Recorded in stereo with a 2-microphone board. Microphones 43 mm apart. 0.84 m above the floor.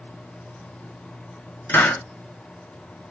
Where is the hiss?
60° left (ahead or behind), 1.4 m.